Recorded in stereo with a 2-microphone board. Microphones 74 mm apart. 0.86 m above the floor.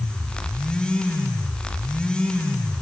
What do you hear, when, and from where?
Only background noise.